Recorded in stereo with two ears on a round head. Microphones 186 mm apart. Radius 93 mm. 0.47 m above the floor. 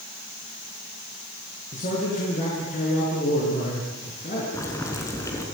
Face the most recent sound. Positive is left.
turn(degrees=15)  # may be behind; listen again after turning